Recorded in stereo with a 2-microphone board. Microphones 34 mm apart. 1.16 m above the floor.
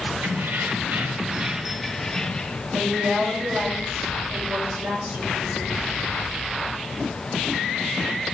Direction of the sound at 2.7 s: 85° right.